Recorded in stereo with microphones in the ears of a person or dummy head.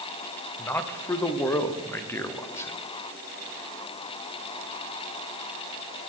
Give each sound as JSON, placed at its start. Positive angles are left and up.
{"t": 0.6, "sound": "a man speaking", "side_deg": 15, "distance_m": 0.7}